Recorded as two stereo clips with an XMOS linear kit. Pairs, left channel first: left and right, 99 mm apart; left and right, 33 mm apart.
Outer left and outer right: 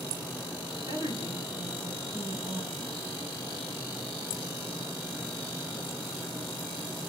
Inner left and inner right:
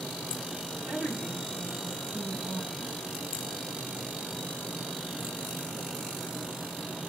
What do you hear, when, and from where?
0.9 s a woman speaking: 50° right (ahead or behind), 9.5 m